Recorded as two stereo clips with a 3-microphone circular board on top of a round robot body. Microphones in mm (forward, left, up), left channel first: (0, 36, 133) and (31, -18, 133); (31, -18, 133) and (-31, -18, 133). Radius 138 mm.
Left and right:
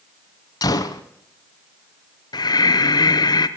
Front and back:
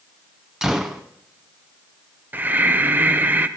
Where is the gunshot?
100° left, 0.6 m.